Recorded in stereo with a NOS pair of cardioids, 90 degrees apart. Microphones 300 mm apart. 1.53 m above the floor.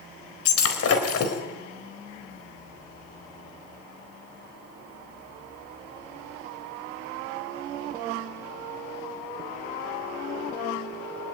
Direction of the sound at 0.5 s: 55° left.